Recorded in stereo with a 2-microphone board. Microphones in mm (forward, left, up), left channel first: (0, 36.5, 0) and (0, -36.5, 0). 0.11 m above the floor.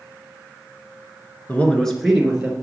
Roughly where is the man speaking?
Left.